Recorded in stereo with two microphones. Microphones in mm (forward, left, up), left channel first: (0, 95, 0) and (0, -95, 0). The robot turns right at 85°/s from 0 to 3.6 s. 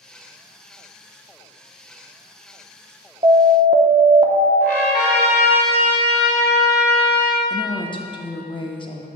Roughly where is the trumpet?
Left.